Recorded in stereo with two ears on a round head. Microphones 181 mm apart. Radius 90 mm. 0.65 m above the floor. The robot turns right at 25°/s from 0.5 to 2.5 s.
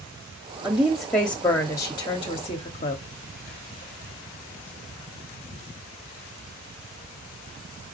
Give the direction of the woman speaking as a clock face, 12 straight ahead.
12 o'clock.